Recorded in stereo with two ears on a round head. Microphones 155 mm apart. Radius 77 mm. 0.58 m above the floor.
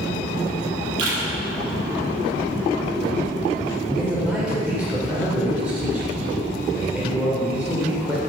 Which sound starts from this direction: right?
A camera shutter, at 1.0 s.